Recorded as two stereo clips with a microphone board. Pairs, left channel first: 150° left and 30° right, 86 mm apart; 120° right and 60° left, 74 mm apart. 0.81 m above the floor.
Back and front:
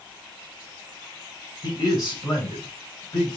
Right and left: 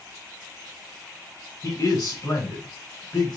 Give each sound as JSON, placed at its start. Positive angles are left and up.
{"t": 1.6, "sound": "a man speaking", "azimuth_deg": -170, "distance_m": 5.0}